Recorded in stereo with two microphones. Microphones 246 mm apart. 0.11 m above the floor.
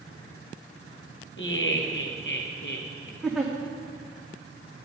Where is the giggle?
Centre (ahead or behind), 2.0 m.